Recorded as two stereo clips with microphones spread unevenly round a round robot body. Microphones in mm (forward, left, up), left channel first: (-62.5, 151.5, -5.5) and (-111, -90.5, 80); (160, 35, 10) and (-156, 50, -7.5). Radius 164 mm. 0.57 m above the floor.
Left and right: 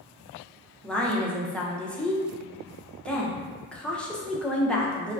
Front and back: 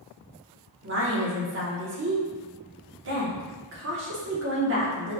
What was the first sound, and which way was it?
A woman speaking, 145° left.